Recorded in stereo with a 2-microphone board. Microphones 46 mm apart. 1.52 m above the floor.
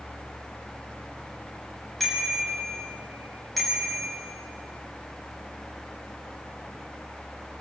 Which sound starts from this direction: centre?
A bicycle bell, at 2.0 s.